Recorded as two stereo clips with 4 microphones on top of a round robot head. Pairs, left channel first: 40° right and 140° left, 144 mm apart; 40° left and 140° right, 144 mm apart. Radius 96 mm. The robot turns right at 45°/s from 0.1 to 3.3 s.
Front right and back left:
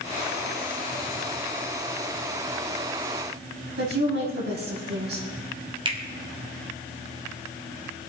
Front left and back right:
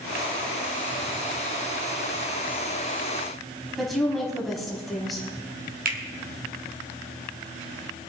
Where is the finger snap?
160° right, 2.5 m.